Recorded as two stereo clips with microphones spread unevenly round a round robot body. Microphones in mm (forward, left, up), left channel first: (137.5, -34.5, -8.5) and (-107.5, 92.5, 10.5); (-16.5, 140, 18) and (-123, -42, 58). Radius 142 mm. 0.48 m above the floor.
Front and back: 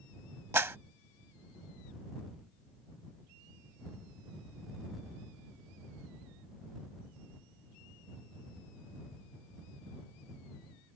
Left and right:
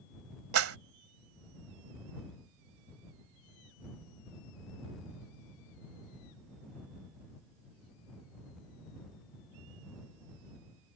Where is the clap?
125° right.